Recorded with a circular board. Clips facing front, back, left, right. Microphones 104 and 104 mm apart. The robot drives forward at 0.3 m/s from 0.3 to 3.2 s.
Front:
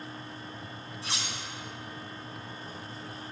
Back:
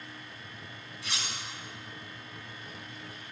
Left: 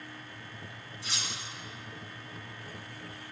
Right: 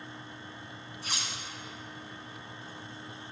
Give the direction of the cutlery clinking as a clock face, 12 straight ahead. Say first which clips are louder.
Front 1 dB, right 1 dB; 2 o'clock.